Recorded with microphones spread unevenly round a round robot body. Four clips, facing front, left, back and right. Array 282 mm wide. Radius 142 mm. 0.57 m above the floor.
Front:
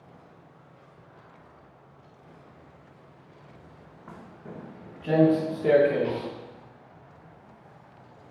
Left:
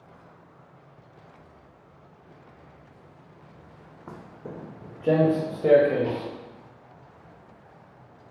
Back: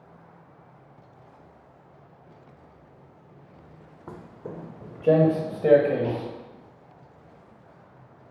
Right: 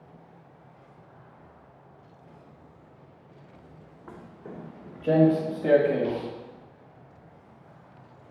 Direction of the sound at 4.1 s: 140° left.